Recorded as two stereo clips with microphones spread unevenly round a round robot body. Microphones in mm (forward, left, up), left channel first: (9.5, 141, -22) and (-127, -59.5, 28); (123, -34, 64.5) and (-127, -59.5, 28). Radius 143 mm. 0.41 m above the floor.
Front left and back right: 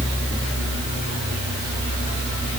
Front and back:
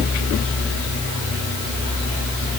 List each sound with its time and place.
Only background noise.